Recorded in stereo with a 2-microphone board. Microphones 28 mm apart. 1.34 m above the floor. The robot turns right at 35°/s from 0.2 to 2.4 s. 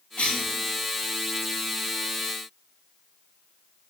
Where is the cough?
45° left (ahead or behind), 0.9 m; by 0.5 s 55° left (ahead or behind), 0.9 m.